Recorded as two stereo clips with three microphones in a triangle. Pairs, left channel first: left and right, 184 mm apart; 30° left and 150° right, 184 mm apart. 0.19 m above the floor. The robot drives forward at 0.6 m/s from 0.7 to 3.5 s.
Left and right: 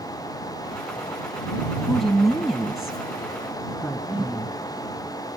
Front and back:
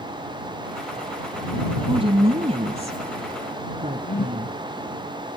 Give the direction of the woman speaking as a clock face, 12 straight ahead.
6 o'clock.